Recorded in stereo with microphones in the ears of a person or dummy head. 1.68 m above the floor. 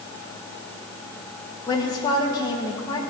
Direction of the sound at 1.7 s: 30° left (ahead or behind).